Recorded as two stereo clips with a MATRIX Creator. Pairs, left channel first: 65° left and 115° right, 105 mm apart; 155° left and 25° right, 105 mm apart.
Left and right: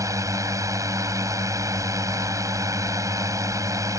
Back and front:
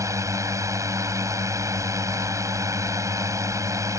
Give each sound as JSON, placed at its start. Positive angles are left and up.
{"t": 0.0, "sound": "a drone", "azimuth_deg": -70}